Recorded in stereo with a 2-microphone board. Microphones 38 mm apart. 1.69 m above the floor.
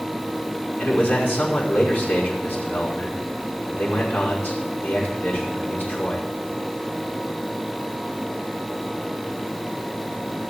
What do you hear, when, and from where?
0.8 s a man speaking: 60° left (ahead or behind), 5.5 m